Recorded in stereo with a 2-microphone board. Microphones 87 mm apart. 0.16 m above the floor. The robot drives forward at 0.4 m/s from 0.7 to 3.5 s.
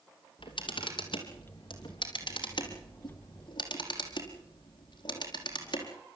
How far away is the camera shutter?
About 4 m.